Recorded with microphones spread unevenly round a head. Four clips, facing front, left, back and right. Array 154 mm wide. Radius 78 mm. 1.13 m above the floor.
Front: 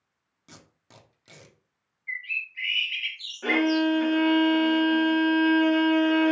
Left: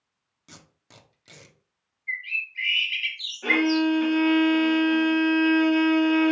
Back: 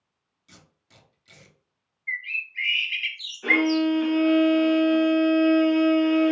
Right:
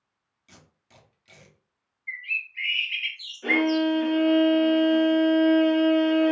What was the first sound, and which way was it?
Tape being pulled, 45° left.